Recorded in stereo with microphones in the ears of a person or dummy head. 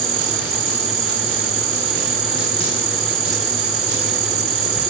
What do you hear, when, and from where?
0.0 s an insect: 75° right (ahead or behind), 0.8 m